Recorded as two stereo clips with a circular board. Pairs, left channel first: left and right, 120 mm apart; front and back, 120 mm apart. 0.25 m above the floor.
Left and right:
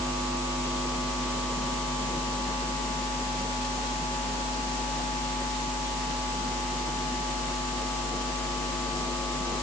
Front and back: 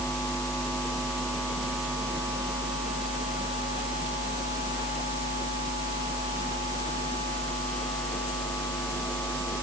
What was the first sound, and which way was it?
Only background noise.